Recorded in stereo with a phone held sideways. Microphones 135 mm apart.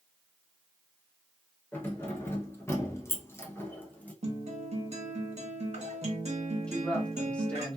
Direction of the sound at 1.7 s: 15° left (ahead or behind).